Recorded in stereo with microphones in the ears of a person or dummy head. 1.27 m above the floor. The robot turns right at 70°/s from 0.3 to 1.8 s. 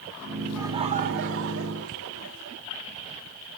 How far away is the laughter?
About 3.5 m.